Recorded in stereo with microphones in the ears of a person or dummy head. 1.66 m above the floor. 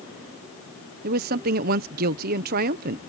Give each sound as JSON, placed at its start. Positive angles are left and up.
{"t": 1.0, "sound": "a woman speaking", "side_deg": -55}